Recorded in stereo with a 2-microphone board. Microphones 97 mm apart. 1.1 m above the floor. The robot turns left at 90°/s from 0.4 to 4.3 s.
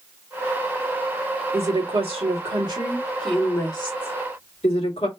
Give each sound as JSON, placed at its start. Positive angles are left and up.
{"t": 1.5, "sound": "a woman speaking", "azimuth_deg": -25, "distance_m": 2.0}